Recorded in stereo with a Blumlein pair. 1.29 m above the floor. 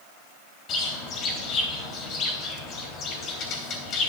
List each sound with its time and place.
0.7 s a bird: 30° left, 3.5 m